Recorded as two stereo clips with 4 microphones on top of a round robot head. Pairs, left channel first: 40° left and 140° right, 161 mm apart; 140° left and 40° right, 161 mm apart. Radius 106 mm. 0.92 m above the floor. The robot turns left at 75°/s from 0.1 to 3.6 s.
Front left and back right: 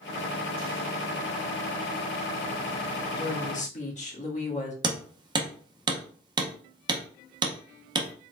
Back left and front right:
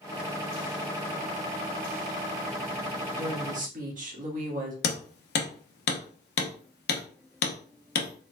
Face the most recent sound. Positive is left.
turn(degrees=160)